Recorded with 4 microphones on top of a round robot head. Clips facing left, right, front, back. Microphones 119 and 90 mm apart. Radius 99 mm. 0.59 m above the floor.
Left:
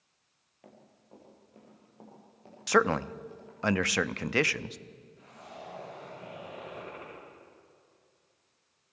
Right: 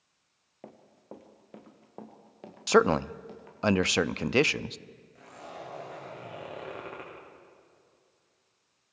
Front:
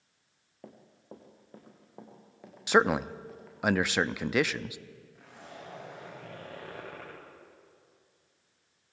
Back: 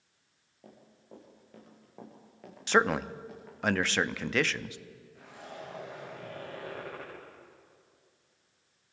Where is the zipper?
90° right, 10 m.